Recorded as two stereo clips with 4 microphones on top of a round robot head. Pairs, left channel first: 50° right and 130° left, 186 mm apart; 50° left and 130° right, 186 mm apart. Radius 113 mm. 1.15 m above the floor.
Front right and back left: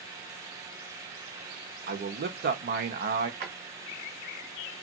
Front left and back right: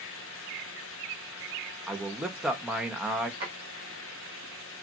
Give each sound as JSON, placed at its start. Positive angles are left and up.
{"t": 1.9, "sound": "a man speaking", "azimuth_deg": 145, "distance_m": 1.0}
{"t": 3.4, "sound": "a drawer", "azimuth_deg": 170, "distance_m": 1.2}